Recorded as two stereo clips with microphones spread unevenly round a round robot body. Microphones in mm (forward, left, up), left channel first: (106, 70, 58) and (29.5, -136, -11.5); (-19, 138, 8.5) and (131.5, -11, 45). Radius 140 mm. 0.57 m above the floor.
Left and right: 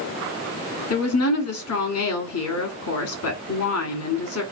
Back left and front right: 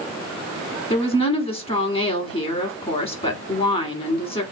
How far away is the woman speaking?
About 1.5 m.